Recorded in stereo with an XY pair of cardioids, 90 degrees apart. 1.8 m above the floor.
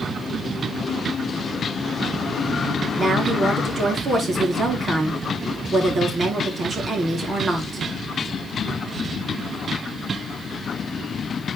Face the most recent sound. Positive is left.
turn(degrees=-45)